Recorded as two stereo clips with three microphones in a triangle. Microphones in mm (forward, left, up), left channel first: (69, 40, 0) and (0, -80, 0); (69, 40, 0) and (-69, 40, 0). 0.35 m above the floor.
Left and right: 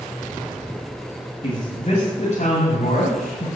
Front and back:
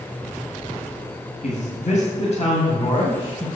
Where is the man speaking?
15° left, 2.5 m; by 3.5 s 50° left, 2.5 m.